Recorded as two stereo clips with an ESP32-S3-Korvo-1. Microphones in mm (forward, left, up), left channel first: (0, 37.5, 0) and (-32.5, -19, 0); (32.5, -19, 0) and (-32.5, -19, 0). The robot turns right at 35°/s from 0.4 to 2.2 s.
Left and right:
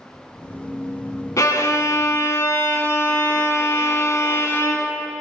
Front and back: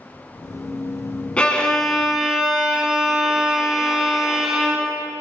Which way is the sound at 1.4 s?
70° left.